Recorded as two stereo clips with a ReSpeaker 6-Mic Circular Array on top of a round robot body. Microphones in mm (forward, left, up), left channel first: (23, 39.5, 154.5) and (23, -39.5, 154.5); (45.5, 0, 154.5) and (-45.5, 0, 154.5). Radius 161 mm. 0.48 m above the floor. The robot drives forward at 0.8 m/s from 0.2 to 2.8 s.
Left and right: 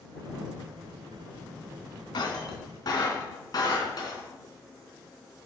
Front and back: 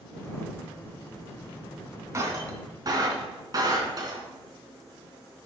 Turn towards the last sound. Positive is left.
turn(degrees=130)